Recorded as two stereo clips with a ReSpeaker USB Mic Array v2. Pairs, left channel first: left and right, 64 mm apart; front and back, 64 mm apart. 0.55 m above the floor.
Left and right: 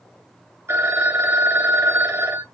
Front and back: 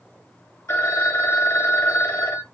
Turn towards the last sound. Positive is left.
turn(degrees=-50)